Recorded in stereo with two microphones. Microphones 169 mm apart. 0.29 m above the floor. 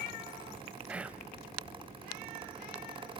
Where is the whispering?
5° right (ahead or behind), 1.2 m.